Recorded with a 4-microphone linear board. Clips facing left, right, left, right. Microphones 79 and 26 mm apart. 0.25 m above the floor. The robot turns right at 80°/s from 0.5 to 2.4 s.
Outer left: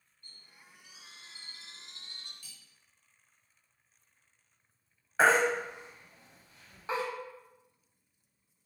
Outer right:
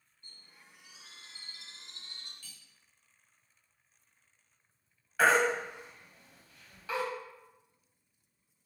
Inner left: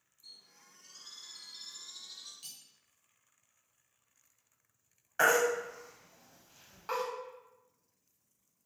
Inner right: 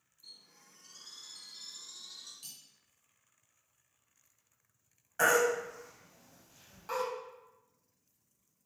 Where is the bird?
25° right (ahead or behind), 1.4 m; by 2.3 s 50° left (ahead or behind), 1.4 m.